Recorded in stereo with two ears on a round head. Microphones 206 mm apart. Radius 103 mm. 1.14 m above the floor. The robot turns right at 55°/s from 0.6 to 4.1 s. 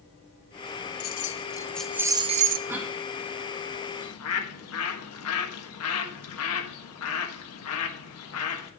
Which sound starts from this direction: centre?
A cough, at 2.7 s.